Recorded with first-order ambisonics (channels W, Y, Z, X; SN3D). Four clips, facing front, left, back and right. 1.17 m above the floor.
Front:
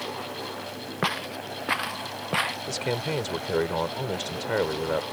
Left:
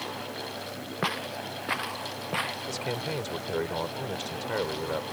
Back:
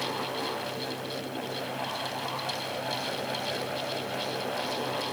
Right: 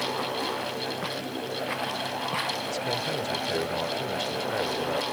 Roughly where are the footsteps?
Ahead.